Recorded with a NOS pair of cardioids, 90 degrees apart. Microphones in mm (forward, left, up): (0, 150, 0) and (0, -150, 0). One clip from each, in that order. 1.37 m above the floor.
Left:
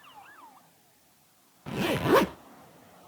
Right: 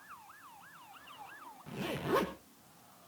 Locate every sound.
1.7 s a zipper: 55° left, 0.9 m